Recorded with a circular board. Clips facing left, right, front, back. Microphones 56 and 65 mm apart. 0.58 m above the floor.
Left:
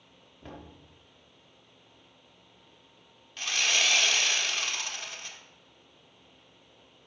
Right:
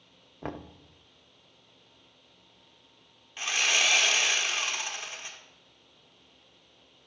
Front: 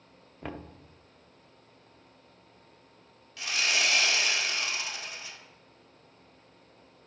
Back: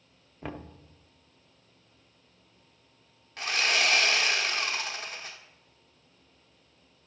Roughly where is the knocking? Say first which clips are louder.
Right 8 dB, even; right.